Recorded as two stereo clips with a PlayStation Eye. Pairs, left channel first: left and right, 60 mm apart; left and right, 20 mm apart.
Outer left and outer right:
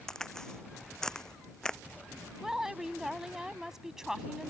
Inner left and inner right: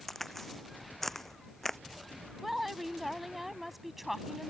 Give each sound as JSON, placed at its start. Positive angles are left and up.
{"t": 0.1, "sound": "a crack", "side_deg": 10}
{"t": 2.4, "sound": "a woman speaking", "side_deg": -10}